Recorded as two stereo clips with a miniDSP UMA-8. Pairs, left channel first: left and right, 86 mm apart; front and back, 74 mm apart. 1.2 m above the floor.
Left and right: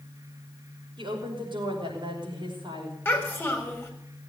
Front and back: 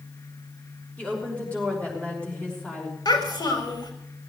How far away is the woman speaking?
About 5.5 m.